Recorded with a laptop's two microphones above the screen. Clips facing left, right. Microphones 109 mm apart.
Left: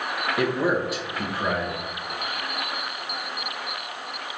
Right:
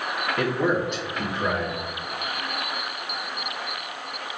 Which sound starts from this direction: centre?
A man speaking, at 0.4 s.